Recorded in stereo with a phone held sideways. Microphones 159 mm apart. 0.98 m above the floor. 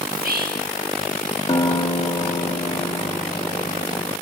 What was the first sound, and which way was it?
Whispering, 70° right (ahead or behind).